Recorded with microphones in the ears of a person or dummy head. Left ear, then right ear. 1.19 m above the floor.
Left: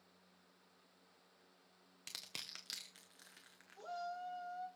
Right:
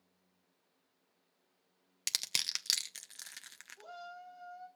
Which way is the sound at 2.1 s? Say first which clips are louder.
Right 14 dB; 55° right (ahead or behind).